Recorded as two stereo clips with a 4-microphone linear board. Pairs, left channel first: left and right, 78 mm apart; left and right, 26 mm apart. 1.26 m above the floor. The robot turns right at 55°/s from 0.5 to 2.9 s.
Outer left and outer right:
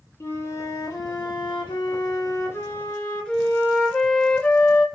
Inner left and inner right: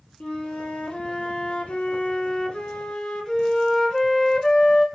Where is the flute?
35° left, 0.7 m; by 4.8 s 165° left, 0.7 m.